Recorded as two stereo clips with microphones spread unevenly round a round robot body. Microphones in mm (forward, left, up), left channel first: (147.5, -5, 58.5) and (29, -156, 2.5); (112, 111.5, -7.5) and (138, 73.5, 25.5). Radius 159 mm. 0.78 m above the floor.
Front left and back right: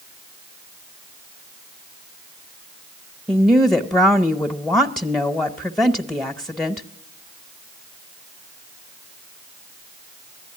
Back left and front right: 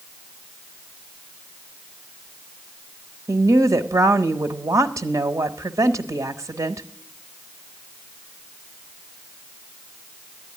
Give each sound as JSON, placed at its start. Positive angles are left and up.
{"t": 3.3, "sound": "a woman speaking", "azimuth_deg": -50, "distance_m": 0.9}